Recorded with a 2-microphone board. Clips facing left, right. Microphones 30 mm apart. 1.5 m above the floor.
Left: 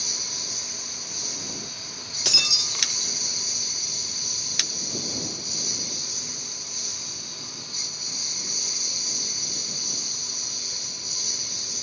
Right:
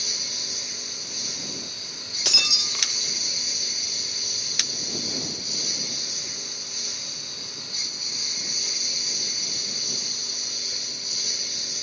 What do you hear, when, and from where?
0.0 s a lawn mower: 20° right (ahead or behind)
2.2 s breaking glass: 5° right (ahead or behind)